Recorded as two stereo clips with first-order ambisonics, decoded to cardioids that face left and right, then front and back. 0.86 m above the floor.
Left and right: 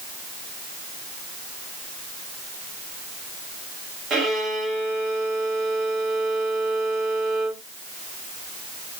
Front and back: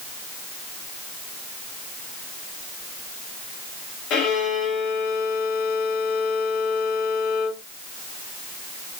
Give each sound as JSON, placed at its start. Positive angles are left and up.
{"t": 4.1, "sound": "a violin", "azimuth_deg": -35, "distance_m": 1.0}